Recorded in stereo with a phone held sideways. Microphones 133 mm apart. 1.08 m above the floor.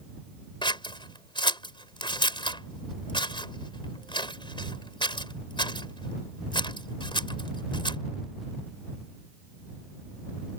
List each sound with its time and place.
0.6 s scissors: 40° left (ahead or behind)